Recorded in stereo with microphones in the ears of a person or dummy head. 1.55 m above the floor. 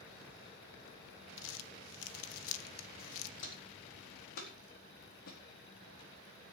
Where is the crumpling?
75° left (ahead or behind), 0.8 m.